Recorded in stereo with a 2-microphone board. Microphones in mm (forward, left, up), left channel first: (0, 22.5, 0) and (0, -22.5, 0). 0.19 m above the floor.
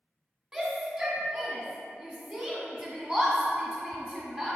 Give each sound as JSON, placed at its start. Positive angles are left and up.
{"t": 0.5, "sound": "a shout", "side_deg": -15, "distance_m": 1.5}